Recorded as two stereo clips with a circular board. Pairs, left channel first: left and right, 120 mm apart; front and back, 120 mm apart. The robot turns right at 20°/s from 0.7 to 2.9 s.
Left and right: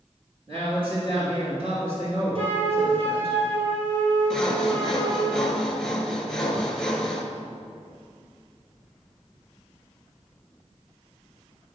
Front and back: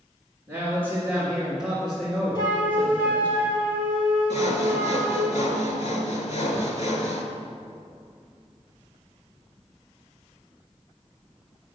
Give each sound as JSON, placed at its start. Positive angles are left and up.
{"t": 0.5, "sound": "a man speaking", "azimuth_deg": -115, "distance_m": 3.0}
{"t": 2.4, "sound": "a flute", "azimuth_deg": -55, "distance_m": 2.0}
{"t": 4.3, "sound": "sawing", "azimuth_deg": 5, "distance_m": 1.1}